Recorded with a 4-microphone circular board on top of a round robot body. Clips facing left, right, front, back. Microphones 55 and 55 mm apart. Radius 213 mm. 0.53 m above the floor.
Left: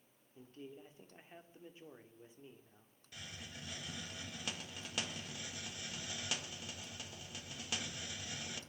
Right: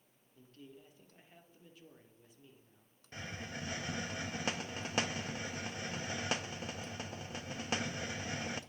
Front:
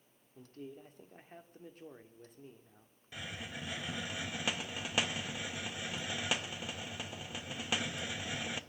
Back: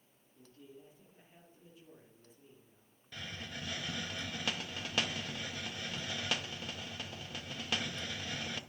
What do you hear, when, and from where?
0.3 s a man speaking: 30° left, 2 m
3.1 s a hiss: 75° right, 1.1 m